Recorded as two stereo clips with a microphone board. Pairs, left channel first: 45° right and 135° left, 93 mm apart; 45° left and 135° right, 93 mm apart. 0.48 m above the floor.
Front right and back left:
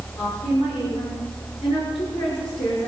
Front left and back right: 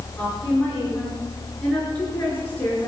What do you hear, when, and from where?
0.2 s a woman speaking: 25° right, 7 m; by 2.9 s 30° right, 5.5 m